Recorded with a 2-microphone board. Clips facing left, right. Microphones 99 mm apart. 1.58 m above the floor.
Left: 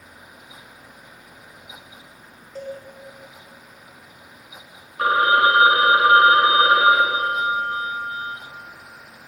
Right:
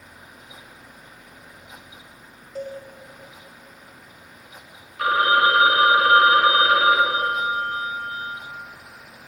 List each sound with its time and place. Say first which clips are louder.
2.5 s a cowbell: right 1 dB; 5° right (ahead or behind), 1.7 m
5.0 s a phone ringing: left 1 dB; 30° left (ahead or behind), 1.1 m